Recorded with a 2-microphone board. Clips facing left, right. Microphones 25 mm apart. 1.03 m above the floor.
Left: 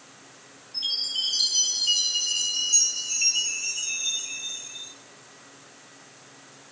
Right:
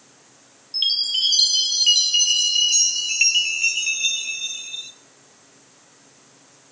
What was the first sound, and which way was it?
A chime, 75° right (ahead or behind).